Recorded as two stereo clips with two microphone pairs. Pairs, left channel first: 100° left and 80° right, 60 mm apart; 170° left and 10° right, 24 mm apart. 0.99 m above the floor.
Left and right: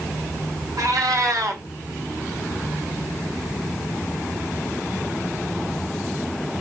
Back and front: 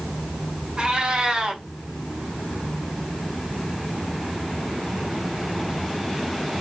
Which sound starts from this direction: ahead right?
A cat meowing, at 0.8 s.